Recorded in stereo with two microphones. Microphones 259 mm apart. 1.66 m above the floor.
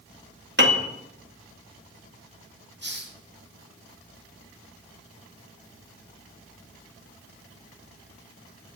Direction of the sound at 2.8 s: 40° right (ahead or behind).